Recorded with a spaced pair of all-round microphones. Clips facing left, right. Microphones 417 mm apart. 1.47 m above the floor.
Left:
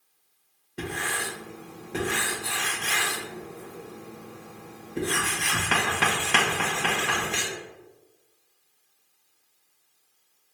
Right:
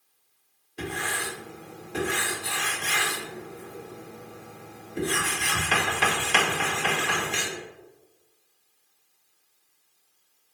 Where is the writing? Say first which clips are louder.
Even; 65° left (ahead or behind), 1.6 m.